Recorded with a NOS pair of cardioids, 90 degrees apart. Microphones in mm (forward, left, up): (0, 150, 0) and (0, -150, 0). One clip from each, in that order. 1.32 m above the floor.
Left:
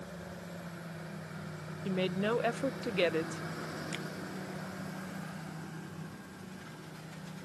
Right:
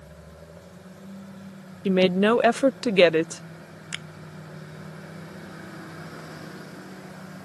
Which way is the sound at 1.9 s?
55° right.